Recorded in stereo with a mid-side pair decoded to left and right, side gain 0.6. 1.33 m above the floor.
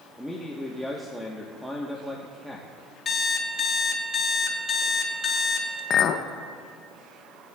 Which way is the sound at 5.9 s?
50° left.